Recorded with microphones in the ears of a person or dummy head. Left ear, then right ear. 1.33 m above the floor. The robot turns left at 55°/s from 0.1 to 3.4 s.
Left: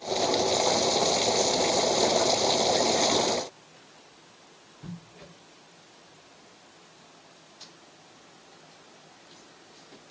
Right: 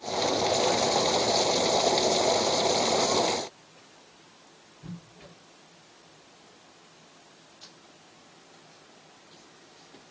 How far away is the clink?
No clink in this recording.